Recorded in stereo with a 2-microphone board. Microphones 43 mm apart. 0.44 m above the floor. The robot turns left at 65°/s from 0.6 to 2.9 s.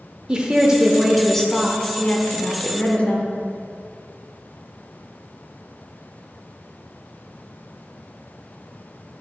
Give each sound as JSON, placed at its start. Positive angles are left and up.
{"t": 0.3, "sound": "a woman speaking", "azimuth_deg": -150, "distance_m": 0.9}